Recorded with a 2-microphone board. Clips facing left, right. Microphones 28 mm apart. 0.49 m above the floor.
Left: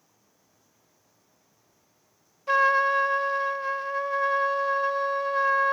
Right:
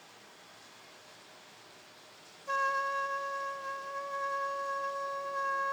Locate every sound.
0.0 s running water: 65° right (ahead or behind)
2.5 s a trumpet: 45° left (ahead or behind)